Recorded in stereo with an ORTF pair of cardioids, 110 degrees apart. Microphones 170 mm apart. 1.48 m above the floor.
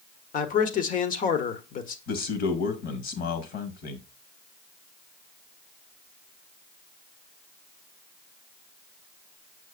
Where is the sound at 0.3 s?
55° left, 1.2 m.